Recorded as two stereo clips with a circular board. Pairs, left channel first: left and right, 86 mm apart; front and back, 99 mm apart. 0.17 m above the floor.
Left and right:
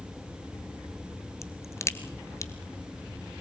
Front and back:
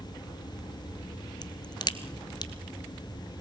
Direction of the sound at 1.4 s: 40° left.